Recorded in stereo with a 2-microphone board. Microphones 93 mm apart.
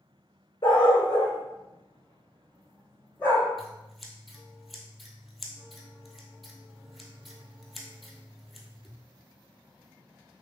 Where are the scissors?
Centre (ahead or behind), 0.8 m.